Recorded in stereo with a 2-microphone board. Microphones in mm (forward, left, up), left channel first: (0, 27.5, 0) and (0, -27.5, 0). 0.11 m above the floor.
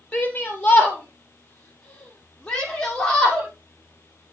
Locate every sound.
0.1 s a shout: 30° left (ahead or behind), 2.5 m; by 3.5 s 15° left (ahead or behind), 3.5 m